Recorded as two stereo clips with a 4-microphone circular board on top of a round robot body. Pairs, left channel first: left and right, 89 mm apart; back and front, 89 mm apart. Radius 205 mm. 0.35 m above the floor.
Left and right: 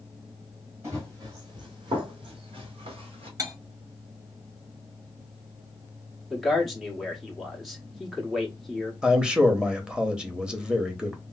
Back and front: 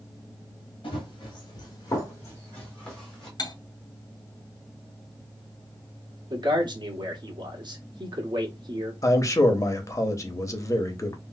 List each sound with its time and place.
0.8 s running footsteps: 150° right, 1.2 m; by 3.3 s 90° right, 1.4 m
3.4 s cutlery clinking: 140° right, 1.1 m
6.3 s a man speaking: straight ahead, 1.5 m
9.0 s a man speaking: 165° right, 1.2 m